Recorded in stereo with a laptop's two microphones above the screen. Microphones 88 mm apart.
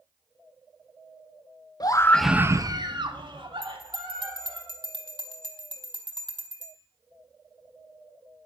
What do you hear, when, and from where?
1.8 s a scream: 45° left (ahead or behind), 0.8 m; by 4.6 s 80° right, 3 m
3.6 s a bell: 65° right (ahead or behind), 1.5 m